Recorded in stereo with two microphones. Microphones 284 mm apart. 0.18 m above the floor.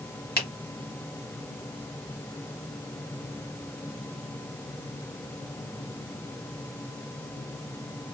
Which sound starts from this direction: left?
A finger snap, at 0.4 s.